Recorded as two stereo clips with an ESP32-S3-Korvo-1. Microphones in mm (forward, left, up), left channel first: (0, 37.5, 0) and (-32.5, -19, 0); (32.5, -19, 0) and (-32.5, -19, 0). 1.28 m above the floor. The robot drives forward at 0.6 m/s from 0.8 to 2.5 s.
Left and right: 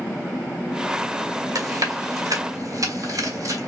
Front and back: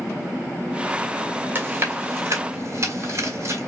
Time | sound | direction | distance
1.6 | chewing | 120° right | 1.5 m